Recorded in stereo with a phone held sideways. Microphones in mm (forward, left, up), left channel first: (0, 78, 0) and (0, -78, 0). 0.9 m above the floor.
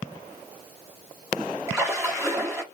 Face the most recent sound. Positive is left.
turn(degrees=-15)  # may be behind; listen again after turning